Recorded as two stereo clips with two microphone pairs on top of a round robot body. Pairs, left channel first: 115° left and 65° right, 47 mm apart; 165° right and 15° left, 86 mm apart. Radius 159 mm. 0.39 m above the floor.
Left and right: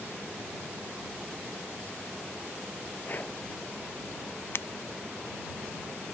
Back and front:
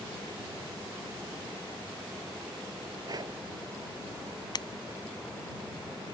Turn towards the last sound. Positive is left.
turn(degrees=155)